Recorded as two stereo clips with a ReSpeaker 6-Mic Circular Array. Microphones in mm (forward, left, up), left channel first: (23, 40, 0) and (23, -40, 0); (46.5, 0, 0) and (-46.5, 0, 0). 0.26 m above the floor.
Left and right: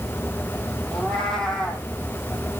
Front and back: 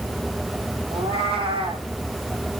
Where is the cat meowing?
175° left, 1.8 m.